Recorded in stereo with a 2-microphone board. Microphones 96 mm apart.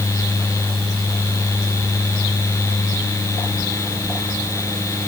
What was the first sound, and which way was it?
Only background noise.